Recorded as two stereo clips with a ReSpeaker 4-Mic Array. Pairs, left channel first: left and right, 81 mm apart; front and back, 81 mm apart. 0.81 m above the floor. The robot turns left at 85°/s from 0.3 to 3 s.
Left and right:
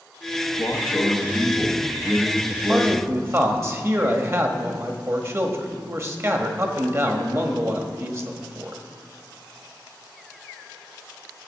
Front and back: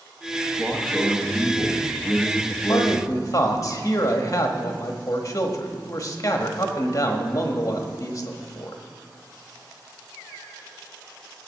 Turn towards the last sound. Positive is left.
turn(degrees=-40)